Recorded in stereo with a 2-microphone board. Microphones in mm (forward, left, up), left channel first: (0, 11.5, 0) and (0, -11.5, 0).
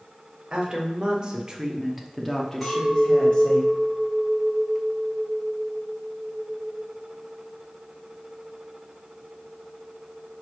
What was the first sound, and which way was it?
A woman speaking, 45° right (ahead or behind).